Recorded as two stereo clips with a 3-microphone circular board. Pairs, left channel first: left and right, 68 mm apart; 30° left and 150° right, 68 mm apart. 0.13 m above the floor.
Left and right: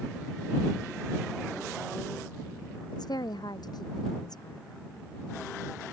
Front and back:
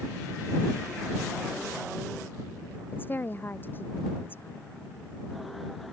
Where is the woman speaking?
90° left.